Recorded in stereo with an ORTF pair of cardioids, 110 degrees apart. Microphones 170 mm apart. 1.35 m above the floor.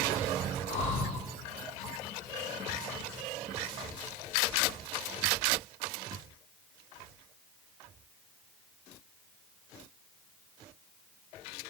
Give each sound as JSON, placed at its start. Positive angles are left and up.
{"t": 0.7, "sound": "breathing", "azimuth_deg": 40, "distance_m": 1.0}